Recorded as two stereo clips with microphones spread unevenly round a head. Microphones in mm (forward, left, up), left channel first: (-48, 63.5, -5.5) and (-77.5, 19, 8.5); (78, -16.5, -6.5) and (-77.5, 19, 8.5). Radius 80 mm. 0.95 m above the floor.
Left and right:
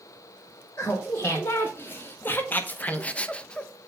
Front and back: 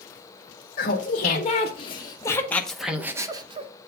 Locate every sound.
0.8 s laughter: 15° left, 1.7 m; by 3.7 s 115° left, 1.1 m